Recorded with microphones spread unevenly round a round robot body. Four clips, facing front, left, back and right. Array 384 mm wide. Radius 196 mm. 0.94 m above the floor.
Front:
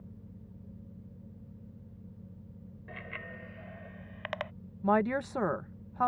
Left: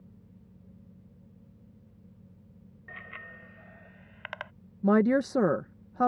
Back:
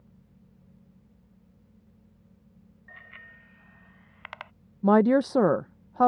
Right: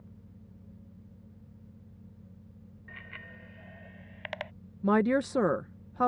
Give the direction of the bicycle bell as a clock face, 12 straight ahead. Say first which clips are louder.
Left 3 dB, front 6 dB; 12 o'clock.